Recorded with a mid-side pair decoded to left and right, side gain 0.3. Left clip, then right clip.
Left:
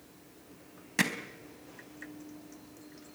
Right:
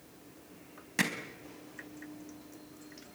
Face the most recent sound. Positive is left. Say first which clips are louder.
# left 2 dB
turn(degrees=25)